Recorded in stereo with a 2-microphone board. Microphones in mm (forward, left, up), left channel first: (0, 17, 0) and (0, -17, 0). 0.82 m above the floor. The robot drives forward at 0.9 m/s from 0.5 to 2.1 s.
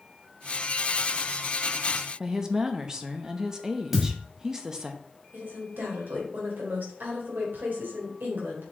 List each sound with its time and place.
2.2 s a woman speaking: 15° right (ahead or behind), 0.9 m
3.9 s a thud: 5° right (ahead or behind), 1.8 m
5.3 s a woman speaking: 75° right (ahead or behind), 3 m